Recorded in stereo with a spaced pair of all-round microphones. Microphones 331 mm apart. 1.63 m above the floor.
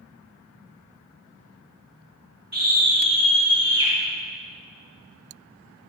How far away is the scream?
About 2.0 m.